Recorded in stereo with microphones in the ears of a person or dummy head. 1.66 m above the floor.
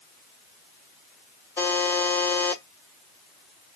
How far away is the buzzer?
About 1.4 m.